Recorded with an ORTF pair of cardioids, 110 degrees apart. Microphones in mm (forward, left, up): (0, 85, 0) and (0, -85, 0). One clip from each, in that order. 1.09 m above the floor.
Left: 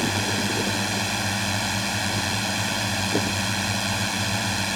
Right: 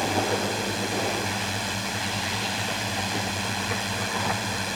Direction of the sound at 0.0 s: 30° left.